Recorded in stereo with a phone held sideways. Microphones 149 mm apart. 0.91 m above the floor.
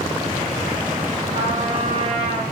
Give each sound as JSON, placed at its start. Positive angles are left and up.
{"t": 1.3, "sound": "a trumpet", "side_deg": -35, "distance_m": 4.0}